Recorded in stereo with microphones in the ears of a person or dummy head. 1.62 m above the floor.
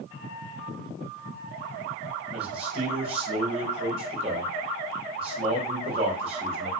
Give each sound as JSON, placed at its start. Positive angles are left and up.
{"t": 2.3, "sound": "a man speaking", "side_deg": -35, "distance_m": 4.0}